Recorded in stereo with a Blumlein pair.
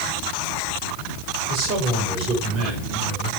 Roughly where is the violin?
No violin in this recording.